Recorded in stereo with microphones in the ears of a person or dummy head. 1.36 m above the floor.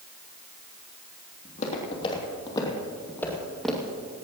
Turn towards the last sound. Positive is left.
turn(degrees=-10)  # may be behind; listen again after turning